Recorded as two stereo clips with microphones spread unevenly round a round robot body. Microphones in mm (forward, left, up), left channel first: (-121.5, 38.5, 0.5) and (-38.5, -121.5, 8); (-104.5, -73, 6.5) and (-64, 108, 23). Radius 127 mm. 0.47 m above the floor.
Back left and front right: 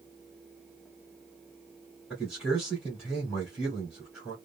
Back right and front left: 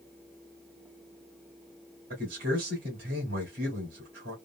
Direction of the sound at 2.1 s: 25° left.